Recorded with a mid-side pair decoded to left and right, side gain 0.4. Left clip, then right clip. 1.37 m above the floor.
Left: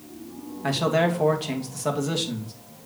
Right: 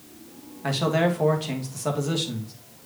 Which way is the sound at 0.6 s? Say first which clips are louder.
Left 1 dB; 10° left.